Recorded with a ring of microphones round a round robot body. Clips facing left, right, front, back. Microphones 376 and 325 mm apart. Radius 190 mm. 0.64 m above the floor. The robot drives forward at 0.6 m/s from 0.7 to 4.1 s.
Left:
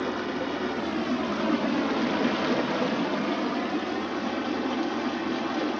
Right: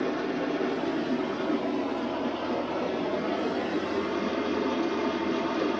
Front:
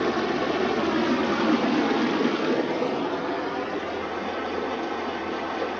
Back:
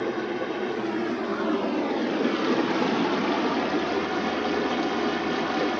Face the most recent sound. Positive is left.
turn(degrees=160)